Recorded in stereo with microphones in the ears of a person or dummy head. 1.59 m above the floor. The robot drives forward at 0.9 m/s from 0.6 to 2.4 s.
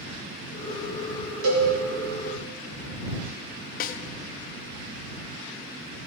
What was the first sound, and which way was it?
A cowbell, 85° right.